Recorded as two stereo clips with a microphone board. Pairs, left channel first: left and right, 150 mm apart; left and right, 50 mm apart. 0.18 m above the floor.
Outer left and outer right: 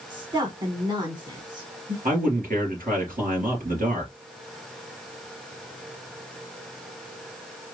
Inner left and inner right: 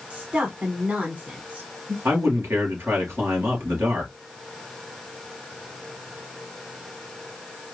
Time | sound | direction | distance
0.1 | a woman speaking | 30° right (ahead or behind) | 1.6 m
2.0 | a man speaking | 65° right (ahead or behind) | 3 m